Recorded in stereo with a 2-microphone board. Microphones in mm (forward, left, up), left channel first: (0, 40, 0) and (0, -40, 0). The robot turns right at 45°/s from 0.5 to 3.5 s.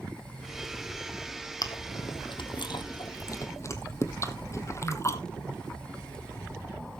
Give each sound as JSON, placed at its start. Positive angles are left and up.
{"t": 1.6, "sound": "chewing", "side_deg": 55, "distance_m": 1.3}